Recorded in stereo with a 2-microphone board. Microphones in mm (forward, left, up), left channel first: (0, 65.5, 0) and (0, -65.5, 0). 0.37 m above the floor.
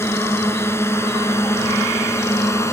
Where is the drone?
20° left (ahead or behind).